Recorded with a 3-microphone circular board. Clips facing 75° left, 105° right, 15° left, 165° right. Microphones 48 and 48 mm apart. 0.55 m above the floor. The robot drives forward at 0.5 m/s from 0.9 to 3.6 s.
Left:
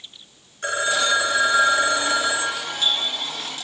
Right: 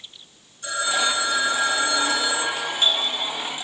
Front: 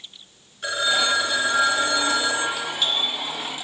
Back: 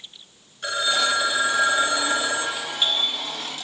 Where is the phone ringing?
100° left, 1.3 m; by 2.5 s 130° left, 1.6 m.